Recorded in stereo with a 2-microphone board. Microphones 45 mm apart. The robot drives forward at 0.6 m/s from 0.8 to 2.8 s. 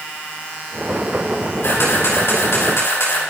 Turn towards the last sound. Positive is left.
turn(degrees=80)